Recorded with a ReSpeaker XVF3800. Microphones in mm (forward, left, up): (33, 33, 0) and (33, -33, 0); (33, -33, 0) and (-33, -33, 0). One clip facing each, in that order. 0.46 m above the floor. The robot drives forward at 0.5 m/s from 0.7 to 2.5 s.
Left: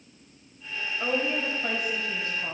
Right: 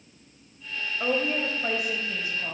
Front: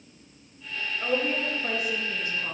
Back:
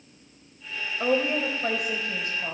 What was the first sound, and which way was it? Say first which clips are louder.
A woman speaking: right 1 dB, back 3 dB; 160° right.